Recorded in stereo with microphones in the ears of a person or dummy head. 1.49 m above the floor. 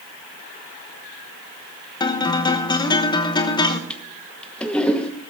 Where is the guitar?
15° left (ahead or behind), 1.0 m.